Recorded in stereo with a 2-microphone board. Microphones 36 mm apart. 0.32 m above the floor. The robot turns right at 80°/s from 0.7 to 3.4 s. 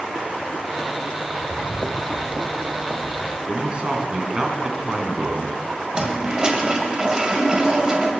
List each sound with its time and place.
1.3 s footsteps: 45° right (ahead or behind), 0.7 m; by 3.4 s 20° left (ahead or behind), 3 m
3.5 s a man speaking: 30° right (ahead or behind), 3 m
5.9 s a toilet flushing: 25° right (ahead or behind), 2 m